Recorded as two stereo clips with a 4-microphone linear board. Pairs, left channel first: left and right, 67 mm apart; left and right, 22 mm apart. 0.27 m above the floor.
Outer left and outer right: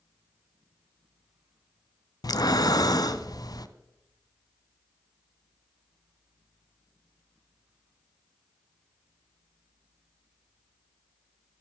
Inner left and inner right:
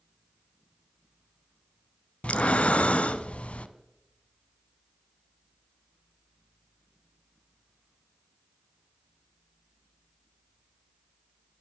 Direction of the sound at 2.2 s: 75° left (ahead or behind).